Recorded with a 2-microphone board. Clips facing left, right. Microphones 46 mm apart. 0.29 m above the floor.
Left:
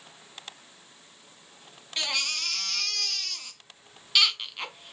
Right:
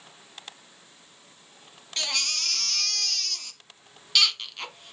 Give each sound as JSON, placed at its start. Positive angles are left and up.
{"t": 2.0, "sound": "a baby crying", "side_deg": 10, "distance_m": 1.5}